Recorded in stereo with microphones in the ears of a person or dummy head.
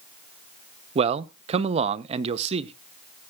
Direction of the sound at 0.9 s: 35° right (ahead or behind).